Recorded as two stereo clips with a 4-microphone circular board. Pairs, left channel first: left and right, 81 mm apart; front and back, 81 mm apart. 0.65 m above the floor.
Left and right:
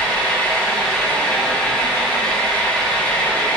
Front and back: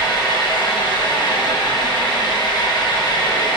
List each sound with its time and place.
0.0 s an engine running: 15° left, 1.9 m